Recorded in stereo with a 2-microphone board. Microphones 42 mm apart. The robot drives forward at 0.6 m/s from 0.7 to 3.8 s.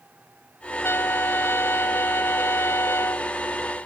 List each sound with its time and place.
0.8 s a trumpet: 65° left (ahead or behind); by 3.3 s 85° left